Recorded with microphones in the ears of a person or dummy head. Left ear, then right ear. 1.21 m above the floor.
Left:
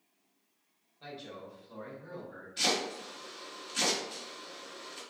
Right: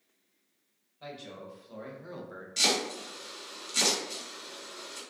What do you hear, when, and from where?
1.0 s a man speaking: 10° right (ahead or behind), 1.1 m; by 2.5 s 55° right (ahead or behind), 0.6 m
2.6 s chopping: 65° right (ahead or behind), 1.5 m